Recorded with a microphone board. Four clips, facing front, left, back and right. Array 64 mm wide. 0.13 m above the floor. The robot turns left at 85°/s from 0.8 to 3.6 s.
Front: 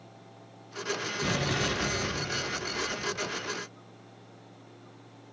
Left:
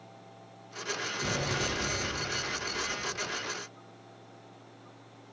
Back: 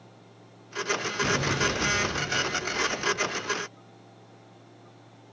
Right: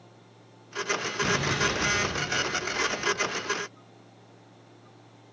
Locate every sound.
1.2 s an explosion: 15° right, 1.7 m; by 3.5 s 155° left, 1.7 m